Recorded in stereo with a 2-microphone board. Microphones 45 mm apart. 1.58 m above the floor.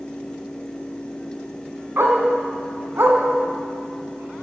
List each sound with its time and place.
2.0 s a dog barking: 55° right (ahead or behind), 3.5 m